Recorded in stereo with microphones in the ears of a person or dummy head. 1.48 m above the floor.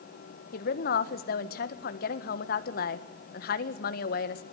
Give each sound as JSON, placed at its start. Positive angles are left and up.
{"t": 0.5, "sound": "a woman speaking", "side_deg": 50, "distance_m": 1.6}